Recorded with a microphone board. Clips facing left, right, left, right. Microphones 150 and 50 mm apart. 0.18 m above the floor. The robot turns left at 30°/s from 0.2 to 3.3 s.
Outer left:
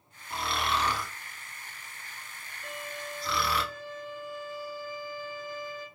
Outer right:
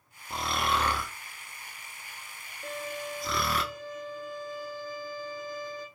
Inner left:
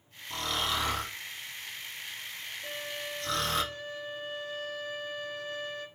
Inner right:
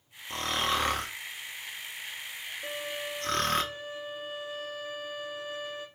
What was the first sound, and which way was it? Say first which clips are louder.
Snoring: outer right 1 dB, inner right 2 dB; 40° right (ahead or behind).